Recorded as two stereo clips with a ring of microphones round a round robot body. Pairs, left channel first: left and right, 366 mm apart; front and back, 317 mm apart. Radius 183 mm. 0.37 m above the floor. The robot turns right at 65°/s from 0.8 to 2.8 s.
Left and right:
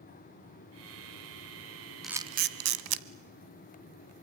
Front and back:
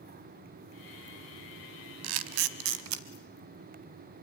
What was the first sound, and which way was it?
A camera shutter, straight behind.